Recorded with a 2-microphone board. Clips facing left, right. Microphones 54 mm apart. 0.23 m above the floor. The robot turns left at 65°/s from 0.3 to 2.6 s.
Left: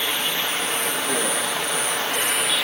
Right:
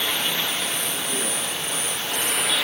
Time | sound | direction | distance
0.0 | running water | 170° left | 2 m